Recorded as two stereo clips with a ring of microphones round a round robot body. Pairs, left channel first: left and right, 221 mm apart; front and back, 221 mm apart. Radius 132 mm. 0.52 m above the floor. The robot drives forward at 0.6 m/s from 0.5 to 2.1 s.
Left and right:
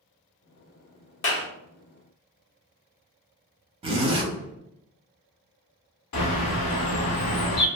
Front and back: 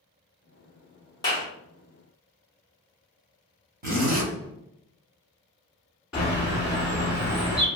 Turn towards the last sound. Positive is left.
turn(degrees=90)